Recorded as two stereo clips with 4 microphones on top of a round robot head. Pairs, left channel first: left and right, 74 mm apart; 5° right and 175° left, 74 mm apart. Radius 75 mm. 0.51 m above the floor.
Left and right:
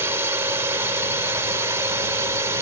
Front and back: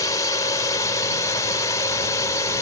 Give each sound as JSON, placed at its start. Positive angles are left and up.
{"t": 0.0, "sound": "a drone", "azimuth_deg": -40}